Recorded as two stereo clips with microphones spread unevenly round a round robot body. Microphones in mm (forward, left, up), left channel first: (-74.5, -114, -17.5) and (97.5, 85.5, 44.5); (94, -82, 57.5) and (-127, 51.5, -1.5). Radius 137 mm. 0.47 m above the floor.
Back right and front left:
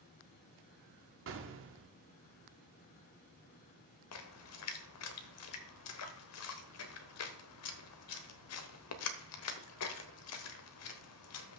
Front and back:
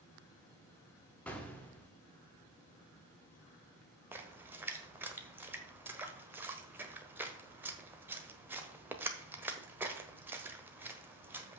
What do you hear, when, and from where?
1.3 s an explosion: 70° left, 1.1 m
4.1 s a splash: 135° right, 1.1 m